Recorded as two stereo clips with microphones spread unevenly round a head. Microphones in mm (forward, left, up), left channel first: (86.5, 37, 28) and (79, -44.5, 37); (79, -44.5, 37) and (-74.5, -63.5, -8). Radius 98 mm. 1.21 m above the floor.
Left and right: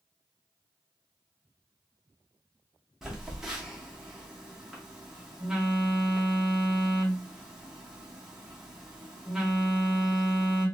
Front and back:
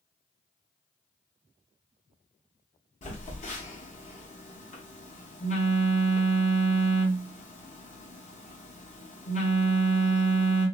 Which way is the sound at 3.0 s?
15° right.